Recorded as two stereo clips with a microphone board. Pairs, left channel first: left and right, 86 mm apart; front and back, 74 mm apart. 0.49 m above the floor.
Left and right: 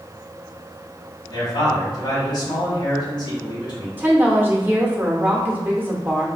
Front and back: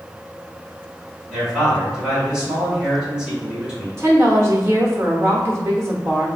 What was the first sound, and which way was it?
A man speaking, 105° left.